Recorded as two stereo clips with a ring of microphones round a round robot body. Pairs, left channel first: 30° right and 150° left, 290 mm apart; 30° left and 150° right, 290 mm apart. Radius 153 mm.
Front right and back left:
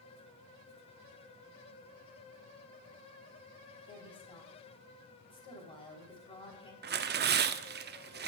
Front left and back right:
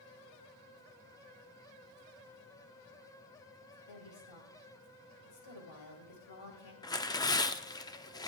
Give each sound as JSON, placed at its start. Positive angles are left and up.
{"t": 3.9, "sound": "a woman speaking", "azimuth_deg": 45, "distance_m": 3.5}
{"t": 6.8, "sound": "tearing paper", "azimuth_deg": 105, "distance_m": 0.6}